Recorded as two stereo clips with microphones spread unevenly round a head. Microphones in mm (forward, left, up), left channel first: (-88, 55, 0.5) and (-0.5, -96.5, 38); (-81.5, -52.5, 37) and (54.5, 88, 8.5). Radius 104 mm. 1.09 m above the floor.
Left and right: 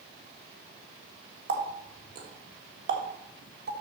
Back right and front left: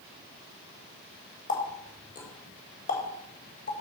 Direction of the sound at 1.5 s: 80° right.